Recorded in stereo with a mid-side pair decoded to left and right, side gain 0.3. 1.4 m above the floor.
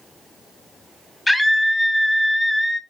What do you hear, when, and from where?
1.3 s a scream: 15° left, 1.0 m